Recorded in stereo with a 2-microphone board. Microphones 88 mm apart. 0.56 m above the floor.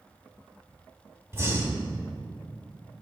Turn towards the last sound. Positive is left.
turn(degrees=-35)  # may be behind; listen again after turning